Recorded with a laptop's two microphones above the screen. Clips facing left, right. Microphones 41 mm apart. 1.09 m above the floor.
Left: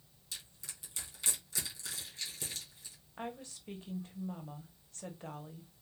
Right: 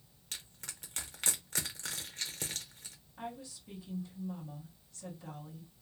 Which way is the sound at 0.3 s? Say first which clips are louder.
Right 2 dB; 50° right (ahead or behind).